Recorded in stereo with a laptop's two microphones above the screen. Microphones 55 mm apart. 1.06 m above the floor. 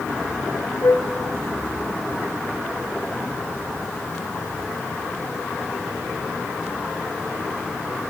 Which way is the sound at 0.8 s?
80° left.